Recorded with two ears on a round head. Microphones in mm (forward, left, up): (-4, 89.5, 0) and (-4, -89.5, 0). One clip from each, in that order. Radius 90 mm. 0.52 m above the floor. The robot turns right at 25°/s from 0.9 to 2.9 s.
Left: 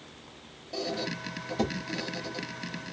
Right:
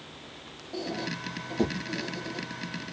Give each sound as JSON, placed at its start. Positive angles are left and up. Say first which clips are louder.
{"t": 0.7, "sound": "a squeak", "louder": "left 1 dB", "side_deg": 75, "distance_m": 1.5}